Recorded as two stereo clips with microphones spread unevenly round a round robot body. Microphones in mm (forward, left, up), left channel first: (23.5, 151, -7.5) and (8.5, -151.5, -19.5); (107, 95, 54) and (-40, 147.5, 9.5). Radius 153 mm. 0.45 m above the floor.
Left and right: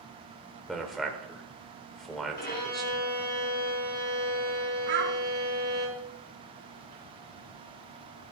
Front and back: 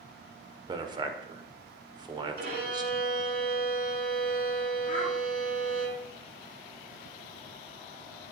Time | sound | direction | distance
0.7 | a man speaking | straight behind | 1.4 m
2.4 | a violin | 145° left | 5.5 m
4.9 | a child speaking | 95° right | 3.5 m